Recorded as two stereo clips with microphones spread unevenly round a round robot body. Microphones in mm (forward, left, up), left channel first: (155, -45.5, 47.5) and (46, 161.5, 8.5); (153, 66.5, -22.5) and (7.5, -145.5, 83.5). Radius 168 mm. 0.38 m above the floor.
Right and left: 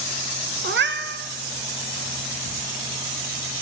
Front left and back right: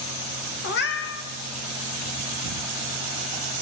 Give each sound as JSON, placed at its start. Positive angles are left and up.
{"t": 0.6, "sound": "a cat meowing", "azimuth_deg": 85, "distance_m": 0.7}